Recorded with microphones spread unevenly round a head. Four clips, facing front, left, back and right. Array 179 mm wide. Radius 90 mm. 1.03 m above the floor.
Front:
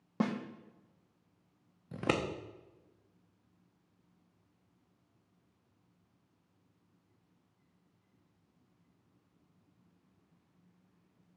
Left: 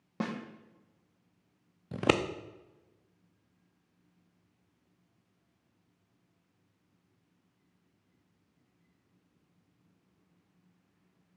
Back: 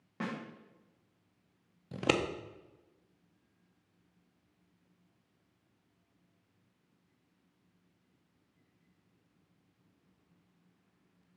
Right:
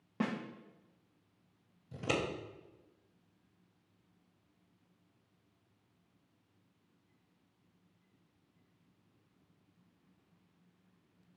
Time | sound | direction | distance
0.2 | a snare drum | 25° left | 1.1 m
1.9 | scissors | 100° left | 0.6 m